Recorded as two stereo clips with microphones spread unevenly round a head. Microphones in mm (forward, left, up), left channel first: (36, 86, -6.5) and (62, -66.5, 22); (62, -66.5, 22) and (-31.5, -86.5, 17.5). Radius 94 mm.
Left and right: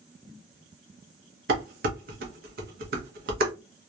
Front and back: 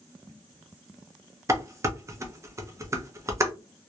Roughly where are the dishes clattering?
Right.